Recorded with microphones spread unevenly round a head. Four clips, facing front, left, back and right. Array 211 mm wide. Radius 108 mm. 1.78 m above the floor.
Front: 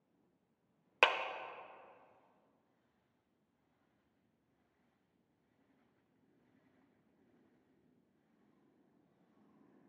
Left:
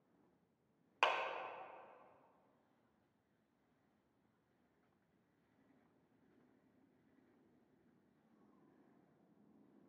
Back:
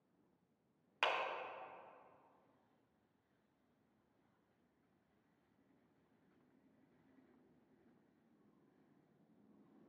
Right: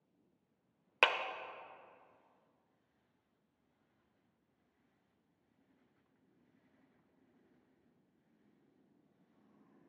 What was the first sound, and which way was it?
A clap, 45° right.